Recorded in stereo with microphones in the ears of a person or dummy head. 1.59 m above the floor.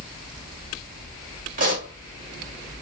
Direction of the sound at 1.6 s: 40° right (ahead or behind).